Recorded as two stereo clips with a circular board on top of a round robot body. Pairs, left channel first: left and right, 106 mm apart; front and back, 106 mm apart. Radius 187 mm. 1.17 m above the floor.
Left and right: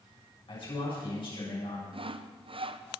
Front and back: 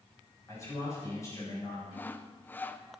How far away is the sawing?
About 0.9 m.